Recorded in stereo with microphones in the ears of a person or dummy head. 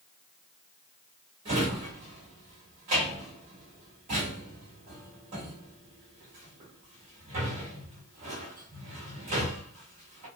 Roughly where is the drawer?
Right.